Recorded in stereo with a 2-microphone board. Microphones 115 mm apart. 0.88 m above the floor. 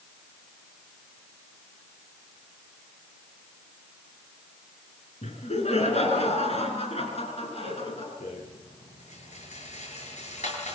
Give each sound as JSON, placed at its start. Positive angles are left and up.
{"t": 5.2, "sound": "laughter", "side_deg": 70, "distance_m": 9.5}
{"t": 8.2, "sound": "a rattle", "side_deg": 80, "distance_m": 8.5}